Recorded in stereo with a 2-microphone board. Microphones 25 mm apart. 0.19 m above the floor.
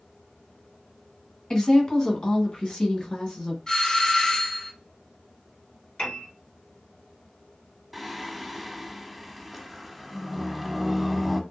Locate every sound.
1.5 s a woman speaking: 30° left (ahead or behind), 1.7 m; by 3.6 s 40° left (ahead or behind), 2 m
3.7 s a doorbell: 30° left (ahead or behind), 2.5 m
6.0 s a piano: 60° left (ahead or behind), 2.5 m
7.9 s singing: centre (ahead or behind), 0.5 m